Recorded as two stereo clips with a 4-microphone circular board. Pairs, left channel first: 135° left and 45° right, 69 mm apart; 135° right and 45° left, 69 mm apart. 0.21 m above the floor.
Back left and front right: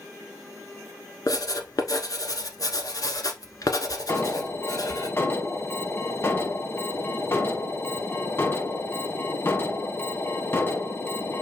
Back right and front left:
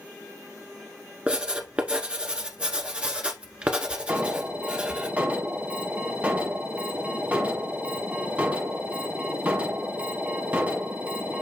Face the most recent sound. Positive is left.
turn(degrees=100)